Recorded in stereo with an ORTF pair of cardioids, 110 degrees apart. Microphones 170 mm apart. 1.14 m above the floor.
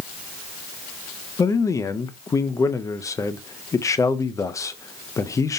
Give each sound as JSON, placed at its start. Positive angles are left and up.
{"t": 1.4, "sound": "a man speaking", "azimuth_deg": 20, "distance_m": 0.5}